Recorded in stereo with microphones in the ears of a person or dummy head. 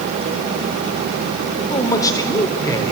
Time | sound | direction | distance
1.7 | a man speaking | 20° left (ahead or behind) | 3.5 m